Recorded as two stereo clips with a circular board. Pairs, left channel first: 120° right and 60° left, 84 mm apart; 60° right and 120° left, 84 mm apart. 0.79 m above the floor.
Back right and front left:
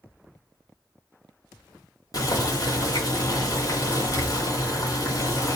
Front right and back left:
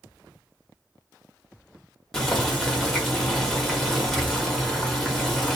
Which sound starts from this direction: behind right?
Boiling, at 2.1 s.